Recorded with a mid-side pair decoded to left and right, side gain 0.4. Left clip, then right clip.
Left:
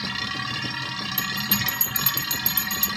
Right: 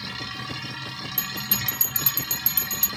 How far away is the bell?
About 0.7 m.